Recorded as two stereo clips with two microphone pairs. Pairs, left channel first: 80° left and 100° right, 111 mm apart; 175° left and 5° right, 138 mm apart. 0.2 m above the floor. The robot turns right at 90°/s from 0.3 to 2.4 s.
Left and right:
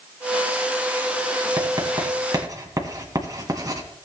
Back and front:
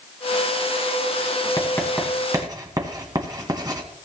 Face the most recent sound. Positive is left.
turn(degrees=-55)